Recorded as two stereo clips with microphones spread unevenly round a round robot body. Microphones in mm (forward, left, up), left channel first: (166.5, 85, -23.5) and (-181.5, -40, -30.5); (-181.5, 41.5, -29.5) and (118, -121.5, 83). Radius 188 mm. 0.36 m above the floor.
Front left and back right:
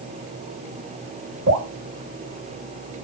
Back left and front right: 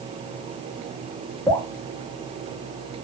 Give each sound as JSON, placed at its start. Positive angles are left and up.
{"t": 1.5, "sound": "dripping", "azimuth_deg": -160, "distance_m": 1.2}